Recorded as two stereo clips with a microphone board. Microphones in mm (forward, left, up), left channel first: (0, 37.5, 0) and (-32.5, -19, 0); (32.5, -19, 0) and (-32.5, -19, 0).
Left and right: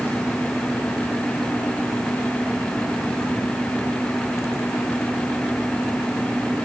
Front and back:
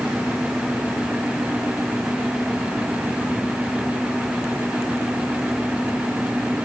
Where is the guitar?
No guitar in this recording.